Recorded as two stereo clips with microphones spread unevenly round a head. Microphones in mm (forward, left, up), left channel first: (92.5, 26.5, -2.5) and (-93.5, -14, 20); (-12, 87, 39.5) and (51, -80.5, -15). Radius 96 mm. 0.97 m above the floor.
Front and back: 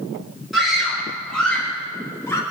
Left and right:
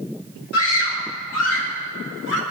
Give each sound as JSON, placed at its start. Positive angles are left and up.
{"t": 0.5, "sound": "a scream", "azimuth_deg": 105, "distance_m": 5.0}